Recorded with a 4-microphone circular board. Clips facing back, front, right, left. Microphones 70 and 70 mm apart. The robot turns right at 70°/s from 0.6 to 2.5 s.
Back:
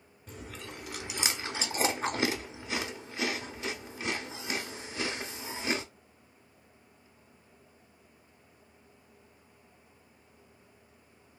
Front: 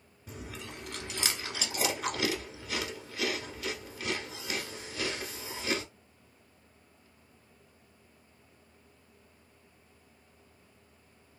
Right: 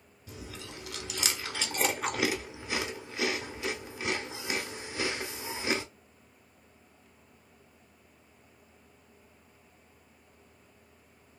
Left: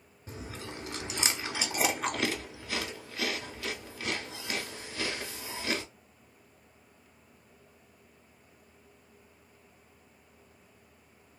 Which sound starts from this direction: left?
Chewing, at 0.3 s.